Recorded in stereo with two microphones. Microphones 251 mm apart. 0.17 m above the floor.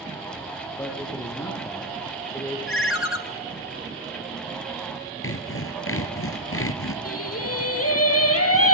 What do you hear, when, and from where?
0.8 s a man speaking: 10° left (ahead or behind), 5 m
2.7 s a ringtone: 60° left (ahead or behind), 1.5 m
5.2 s sawing: 60° left (ahead or behind), 1.8 m
7.0 s singing: 70° left (ahead or behind), 4 m